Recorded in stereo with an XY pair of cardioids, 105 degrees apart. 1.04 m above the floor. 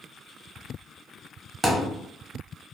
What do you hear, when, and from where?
1.6 s a thud: 15° right, 0.9 m